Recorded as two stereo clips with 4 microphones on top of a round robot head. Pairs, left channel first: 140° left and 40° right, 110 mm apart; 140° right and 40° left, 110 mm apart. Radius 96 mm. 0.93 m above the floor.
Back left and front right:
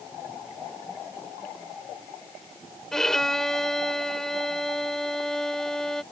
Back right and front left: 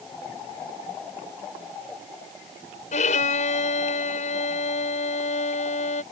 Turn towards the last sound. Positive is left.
turn(degrees=-130)